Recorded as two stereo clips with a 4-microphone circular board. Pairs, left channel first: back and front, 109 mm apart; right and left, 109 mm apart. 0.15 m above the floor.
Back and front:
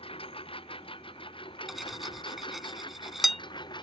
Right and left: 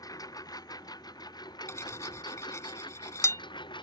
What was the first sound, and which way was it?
A lawn mower, 145° right.